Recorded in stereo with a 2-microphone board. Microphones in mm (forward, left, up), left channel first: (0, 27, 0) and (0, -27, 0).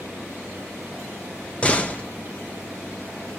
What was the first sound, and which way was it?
A door slam, 20° left (ahead or behind).